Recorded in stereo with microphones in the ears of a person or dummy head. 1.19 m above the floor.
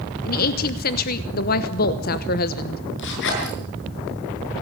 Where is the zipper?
65° left (ahead or behind), 7.5 m.